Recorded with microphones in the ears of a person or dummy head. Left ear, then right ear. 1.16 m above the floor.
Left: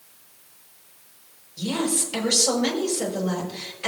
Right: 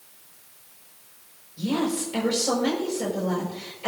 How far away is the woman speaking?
About 6 m.